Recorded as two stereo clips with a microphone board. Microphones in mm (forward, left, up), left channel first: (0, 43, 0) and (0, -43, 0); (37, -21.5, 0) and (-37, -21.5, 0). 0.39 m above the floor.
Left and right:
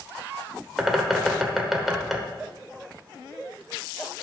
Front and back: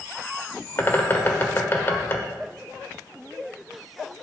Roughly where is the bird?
Ahead.